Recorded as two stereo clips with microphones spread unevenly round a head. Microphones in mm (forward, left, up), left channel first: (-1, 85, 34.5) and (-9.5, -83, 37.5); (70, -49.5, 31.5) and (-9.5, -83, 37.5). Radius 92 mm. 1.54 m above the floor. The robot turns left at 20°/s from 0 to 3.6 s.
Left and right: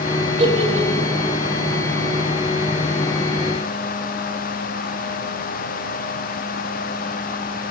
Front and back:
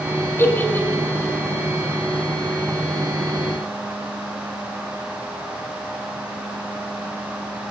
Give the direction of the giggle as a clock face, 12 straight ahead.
1 o'clock.